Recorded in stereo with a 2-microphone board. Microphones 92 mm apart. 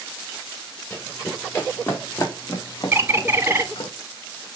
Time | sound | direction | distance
0.9 | running footsteps | 25° left (ahead or behind) | 2.5 m
2.9 | a bird | 25° right (ahead or behind) | 0.8 m